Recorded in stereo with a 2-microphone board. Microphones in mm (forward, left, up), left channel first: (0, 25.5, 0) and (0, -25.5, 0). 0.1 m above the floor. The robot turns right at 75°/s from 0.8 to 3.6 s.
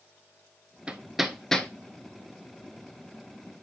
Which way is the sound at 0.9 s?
20° right (ahead or behind).